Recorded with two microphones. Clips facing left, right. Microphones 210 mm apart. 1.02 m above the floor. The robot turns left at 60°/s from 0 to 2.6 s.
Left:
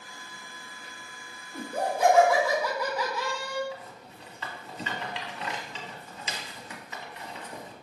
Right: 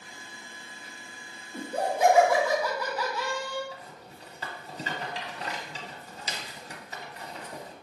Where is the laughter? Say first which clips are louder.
Right 1 dB; 130° right, 1.4 m; by 3.6 s 165° left, 1.4 m.